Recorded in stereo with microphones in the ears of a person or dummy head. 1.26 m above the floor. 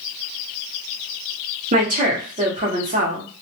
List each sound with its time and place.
1.7 s a woman speaking: 35° right (ahead or behind), 0.7 m